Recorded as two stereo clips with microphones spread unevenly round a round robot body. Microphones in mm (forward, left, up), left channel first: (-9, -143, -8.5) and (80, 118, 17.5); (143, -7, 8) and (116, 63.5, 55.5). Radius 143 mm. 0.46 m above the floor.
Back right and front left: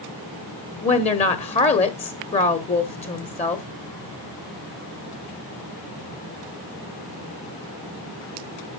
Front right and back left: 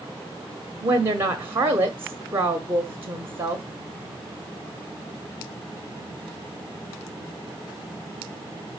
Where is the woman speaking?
155° right, 1.0 m.